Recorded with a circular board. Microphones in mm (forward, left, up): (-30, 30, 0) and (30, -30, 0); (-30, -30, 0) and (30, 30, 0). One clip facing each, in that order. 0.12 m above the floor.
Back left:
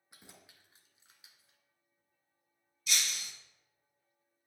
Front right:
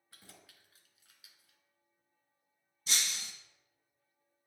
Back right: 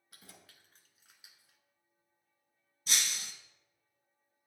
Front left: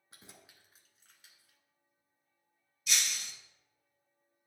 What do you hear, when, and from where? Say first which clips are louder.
0.1 s keys jangling: back left 1 dB, front left 1 dB; 75° left, 1.0 m; by 1.6 s 175° left, 1.1 m
2.9 s breaking glass: back left 1 dB, even; 90° right, 1.2 m